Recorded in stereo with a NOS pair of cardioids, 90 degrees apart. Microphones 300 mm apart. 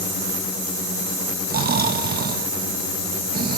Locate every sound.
1.5 s snoring: 30° right, 0.8 m